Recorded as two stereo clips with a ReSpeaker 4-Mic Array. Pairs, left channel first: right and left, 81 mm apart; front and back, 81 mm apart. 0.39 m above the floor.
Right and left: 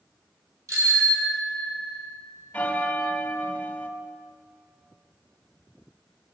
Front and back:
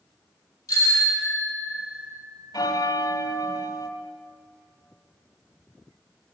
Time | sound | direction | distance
0.7 | a bicycle bell | 50° left | 7.5 m
2.5 | a bell | 20° right | 1.3 m